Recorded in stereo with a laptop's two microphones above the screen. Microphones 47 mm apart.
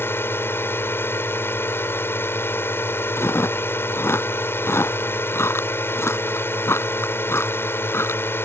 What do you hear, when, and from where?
0.0 s a drone: 60° left (ahead or behind)
3.2 s chewing: 75° left (ahead or behind)